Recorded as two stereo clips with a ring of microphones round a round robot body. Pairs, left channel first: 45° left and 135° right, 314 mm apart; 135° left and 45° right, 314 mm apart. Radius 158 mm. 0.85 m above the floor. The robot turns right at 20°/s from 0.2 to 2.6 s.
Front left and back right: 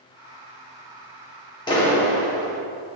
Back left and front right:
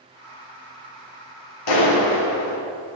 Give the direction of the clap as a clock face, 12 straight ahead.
8 o'clock.